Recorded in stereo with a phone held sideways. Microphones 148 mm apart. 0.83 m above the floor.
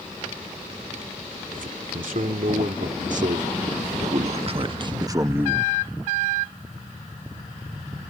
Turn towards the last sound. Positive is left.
turn(degrees=-5)  # may be behind; listen again after turning